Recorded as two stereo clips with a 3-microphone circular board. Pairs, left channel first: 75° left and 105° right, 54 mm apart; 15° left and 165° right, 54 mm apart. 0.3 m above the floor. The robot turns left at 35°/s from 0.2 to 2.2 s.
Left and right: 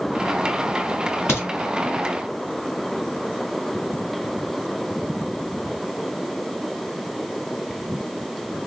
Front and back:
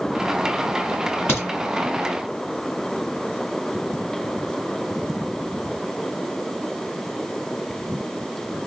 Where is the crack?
50° left, 1.6 m; by 1.5 s 45° left, 1.6 m.